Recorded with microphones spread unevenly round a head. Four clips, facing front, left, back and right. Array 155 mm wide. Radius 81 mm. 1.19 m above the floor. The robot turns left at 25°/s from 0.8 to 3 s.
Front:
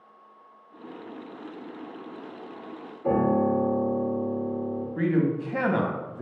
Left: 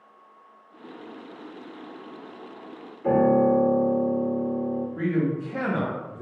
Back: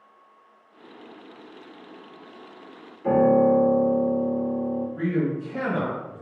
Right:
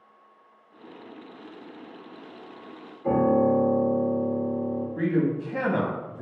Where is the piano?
75° left, 1.9 m.